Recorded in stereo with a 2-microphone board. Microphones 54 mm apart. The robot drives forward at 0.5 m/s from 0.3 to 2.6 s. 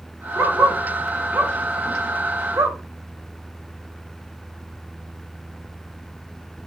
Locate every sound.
0.3 s a dog barking: 70° right (ahead or behind), 2.5 m; by 2.8 s 75° right (ahead or behind), 2.5 m